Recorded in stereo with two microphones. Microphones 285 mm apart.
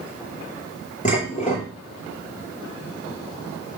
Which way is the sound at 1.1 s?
25° left (ahead or behind).